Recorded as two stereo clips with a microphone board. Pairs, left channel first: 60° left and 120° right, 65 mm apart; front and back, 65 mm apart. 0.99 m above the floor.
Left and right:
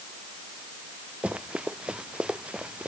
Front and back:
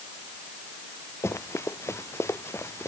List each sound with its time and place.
1.2 s running footsteps: 45° right